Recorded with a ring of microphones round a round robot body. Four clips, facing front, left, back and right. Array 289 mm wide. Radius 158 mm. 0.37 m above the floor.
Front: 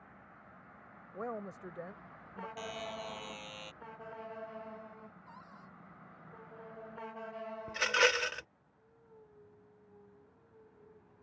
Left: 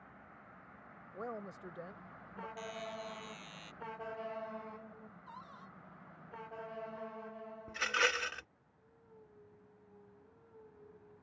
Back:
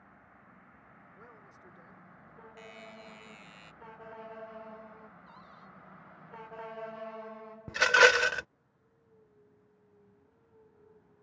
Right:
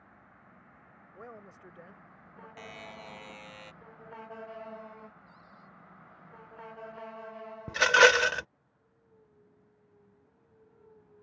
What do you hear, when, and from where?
1.1 s a woman speaking: 15° left
2.6 s a buzzer: 45° right
5.3 s a cupboard door: 75° left
7.7 s a rattle: 115° right